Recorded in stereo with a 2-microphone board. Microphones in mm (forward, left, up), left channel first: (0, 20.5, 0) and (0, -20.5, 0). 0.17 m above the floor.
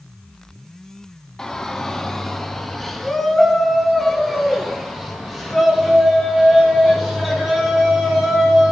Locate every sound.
1.4 s a shout: 15° left (ahead or behind), 1.2 m; by 8.7 s centre (ahead or behind), 6 m